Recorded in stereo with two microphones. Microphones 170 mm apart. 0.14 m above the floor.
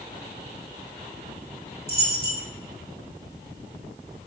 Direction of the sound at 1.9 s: 70° right (ahead or behind).